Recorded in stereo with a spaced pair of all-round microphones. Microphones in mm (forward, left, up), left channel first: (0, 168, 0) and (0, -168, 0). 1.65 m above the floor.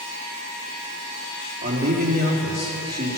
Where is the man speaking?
30° right (ahead or behind), 4 m.